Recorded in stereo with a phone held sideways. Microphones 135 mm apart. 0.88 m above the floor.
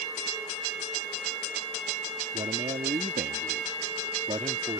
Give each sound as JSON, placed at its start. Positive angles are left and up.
{"t": 2.3, "sound": "a man speaking", "side_deg": -50}